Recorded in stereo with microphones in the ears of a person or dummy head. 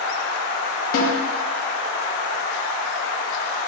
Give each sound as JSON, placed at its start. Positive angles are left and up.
{"t": 0.9, "sound": "a snare drum", "side_deg": 60, "distance_m": 1.7}